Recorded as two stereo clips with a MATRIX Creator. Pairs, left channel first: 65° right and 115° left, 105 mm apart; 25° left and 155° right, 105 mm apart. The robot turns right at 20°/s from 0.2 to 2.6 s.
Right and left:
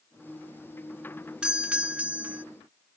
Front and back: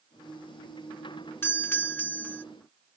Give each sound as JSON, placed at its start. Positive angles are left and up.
{"t": 1.4, "sound": "a doorbell", "azimuth_deg": 45}